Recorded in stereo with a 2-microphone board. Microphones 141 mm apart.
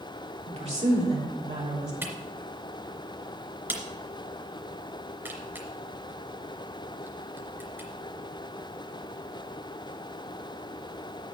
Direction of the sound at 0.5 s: 50° right (ahead or behind).